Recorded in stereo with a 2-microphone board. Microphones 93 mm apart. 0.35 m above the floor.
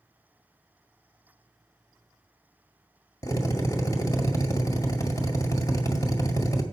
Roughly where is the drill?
Left.